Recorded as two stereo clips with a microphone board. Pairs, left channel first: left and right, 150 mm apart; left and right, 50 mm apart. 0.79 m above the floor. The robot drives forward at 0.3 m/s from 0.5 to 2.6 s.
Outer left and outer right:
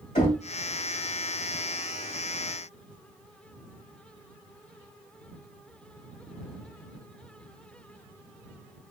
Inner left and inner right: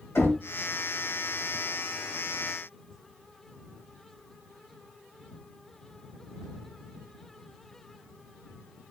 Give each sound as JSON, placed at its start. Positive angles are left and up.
{"t": 0.1, "sound": "knocking", "side_deg": 60, "distance_m": 2.0}